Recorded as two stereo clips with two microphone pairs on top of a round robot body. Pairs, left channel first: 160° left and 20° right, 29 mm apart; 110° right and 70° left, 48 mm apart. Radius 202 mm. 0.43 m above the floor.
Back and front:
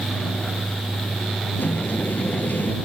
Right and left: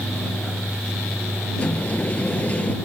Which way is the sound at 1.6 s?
175° right.